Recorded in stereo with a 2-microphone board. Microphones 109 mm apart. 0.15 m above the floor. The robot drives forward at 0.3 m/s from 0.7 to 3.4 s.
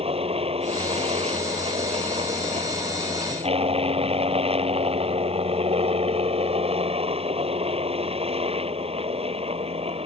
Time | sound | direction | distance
0.0 | a helicopter | 65° right (ahead or behind) | ?